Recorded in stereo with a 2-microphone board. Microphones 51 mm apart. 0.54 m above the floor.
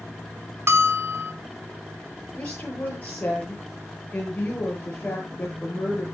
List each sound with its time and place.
0.7 s a bell: 50° right (ahead or behind), 1.5 m
2.4 s a woman speaking: 25° left (ahead or behind), 10 m